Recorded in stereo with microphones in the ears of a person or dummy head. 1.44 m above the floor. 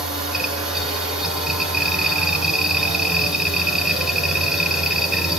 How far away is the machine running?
About 1.8 m.